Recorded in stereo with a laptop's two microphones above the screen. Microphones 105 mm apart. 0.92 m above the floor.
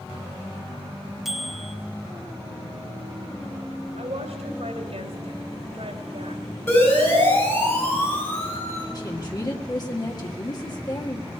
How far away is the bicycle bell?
About 2.5 m.